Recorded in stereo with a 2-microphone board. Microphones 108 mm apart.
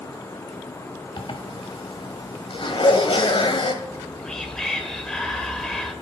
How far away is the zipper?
About 1.3 m.